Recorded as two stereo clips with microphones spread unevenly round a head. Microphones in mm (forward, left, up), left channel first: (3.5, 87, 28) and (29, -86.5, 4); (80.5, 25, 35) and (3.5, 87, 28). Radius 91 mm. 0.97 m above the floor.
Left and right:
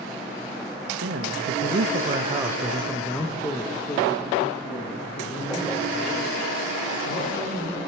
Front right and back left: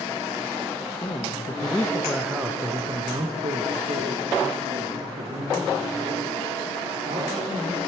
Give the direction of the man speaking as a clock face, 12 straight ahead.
3 o'clock.